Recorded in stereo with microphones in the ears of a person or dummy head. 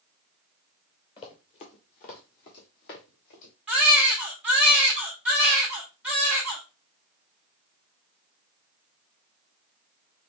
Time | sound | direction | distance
1.2 | running footsteps | 30° left (ahead or behind) | 1.3 m
3.7 | a baby crying | 5° right (ahead or behind) | 1.8 m